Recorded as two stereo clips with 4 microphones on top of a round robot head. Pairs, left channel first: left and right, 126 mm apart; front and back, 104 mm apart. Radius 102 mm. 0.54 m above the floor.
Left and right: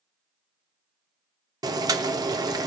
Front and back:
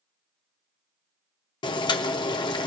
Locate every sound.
1.6 s boiling: 35° right, 0.7 m